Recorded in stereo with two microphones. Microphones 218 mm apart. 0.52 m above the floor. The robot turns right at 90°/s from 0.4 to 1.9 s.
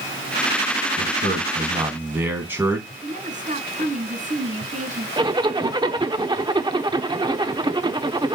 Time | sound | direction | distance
1.0 | a man speaking | 95° right | 3.5 m
3.0 | a woman speaking | 35° right (ahead or behind) | 5.5 m
5.2 | a zipper | 20° right (ahead or behind) | 0.8 m